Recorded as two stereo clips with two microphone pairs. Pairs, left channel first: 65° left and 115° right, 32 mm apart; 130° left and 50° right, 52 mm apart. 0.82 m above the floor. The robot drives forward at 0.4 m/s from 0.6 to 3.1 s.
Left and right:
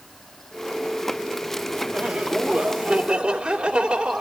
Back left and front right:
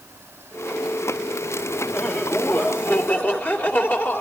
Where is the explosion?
I don't hear an explosion.